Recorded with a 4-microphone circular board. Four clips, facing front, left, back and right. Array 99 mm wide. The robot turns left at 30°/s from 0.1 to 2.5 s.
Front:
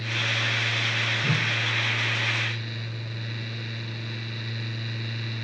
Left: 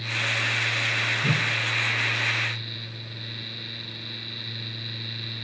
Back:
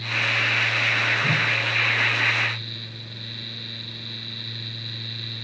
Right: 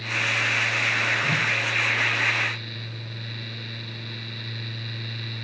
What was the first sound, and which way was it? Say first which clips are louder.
A whoosh: right 1 dB, back 4 dB; 100° left.